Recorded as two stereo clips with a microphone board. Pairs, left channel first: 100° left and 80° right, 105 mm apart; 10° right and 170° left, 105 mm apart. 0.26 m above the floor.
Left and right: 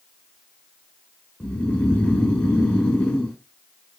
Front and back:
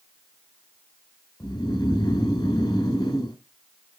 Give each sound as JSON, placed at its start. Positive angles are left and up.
{"t": 1.4, "sound": "snoring", "azimuth_deg": 30, "distance_m": 2.5}